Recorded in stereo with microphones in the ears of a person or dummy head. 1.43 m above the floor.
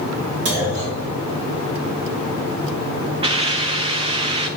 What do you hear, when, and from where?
0.5 s a clunk: 70° right (ahead or behind), 3 m
3.2 s a hiss: 30° right (ahead or behind), 0.7 m